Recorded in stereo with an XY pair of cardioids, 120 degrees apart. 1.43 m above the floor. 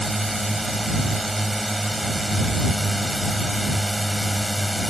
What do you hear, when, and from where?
0.0 s a drone: 5° right